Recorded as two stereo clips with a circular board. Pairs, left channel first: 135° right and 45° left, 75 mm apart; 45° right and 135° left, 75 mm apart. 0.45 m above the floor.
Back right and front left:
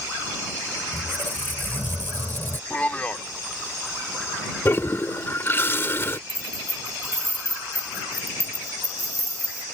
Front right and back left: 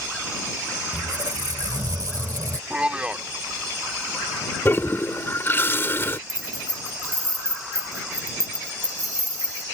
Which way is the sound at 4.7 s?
90° right.